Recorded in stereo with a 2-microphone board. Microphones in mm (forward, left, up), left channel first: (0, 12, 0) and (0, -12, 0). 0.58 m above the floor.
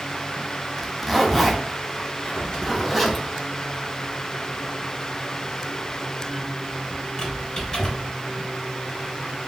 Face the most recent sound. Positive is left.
turn(degrees=25)  # may be behind; listen again after turning